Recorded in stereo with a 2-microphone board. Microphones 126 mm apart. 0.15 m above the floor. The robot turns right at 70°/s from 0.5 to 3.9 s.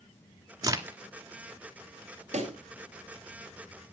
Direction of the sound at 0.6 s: 30° right (ahead or behind).